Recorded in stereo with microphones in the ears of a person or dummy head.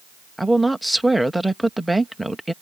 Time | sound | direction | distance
0.4 | a woman speaking | centre (ahead or behind) | ?